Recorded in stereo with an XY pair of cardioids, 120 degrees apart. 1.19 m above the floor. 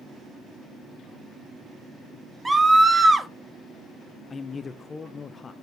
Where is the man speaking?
30° left, 0.6 m.